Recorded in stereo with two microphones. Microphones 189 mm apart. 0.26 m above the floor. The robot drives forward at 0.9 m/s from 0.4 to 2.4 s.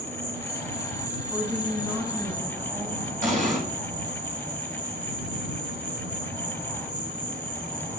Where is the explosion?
45° right (ahead or behind), 2 m.